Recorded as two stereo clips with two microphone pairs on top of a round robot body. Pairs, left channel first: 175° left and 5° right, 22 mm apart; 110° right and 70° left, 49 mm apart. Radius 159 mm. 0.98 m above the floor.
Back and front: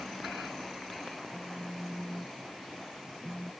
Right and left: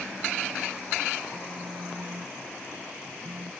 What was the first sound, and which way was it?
A phone buzzing, 65° left.